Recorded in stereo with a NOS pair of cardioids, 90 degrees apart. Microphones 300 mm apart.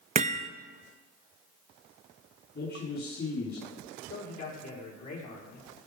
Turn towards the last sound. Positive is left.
turn(degrees=55)